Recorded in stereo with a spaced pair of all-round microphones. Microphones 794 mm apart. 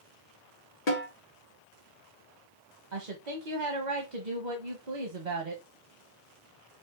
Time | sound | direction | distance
0.9 | a snare drum | 80° left | 2 m
2.9 | a woman speaking | 65° right (ahead or behind) | 1.3 m